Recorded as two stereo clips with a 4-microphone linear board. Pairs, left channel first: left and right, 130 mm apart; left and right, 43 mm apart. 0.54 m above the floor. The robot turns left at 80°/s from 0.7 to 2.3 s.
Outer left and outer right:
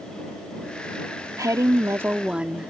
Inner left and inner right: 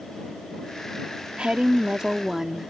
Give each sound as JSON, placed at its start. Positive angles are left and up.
{"t": 1.4, "sound": "a woman speaking", "side_deg": -25}